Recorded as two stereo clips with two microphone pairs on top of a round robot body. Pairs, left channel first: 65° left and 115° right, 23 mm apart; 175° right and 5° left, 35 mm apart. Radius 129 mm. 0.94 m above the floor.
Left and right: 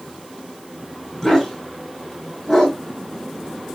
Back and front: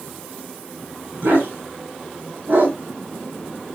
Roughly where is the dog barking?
Ahead.